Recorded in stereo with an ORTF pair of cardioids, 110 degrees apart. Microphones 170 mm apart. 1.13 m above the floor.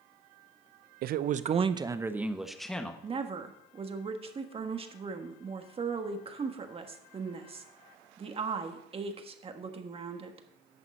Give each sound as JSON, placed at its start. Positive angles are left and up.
{"t": 1.0, "sound": "a man speaking", "azimuth_deg": -70, "distance_m": 0.7}
{"t": 3.0, "sound": "a woman speaking", "azimuth_deg": -35, "distance_m": 1.6}